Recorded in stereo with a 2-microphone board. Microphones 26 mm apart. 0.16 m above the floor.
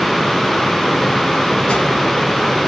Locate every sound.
1.7 s a whoosh: 55° left (ahead or behind), 3 m